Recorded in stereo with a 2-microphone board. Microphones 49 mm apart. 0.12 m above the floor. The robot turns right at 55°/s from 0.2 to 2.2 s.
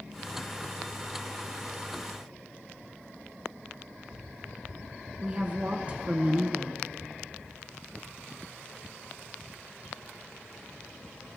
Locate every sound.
5.2 s a woman speaking: 25° right (ahead or behind), 1.3 m